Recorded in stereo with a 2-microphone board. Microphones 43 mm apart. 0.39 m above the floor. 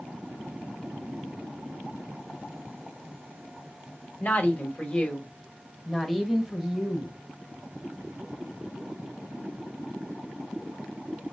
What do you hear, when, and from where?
4.2 s a woman speaking: 40° left (ahead or behind), 1.6 m; by 7.2 s 15° right (ahead or behind), 1.6 m